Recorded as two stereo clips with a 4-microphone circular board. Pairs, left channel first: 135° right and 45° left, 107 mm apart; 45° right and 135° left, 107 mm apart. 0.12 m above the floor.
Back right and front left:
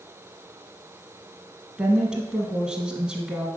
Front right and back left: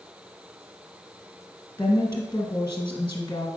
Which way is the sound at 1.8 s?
35° right.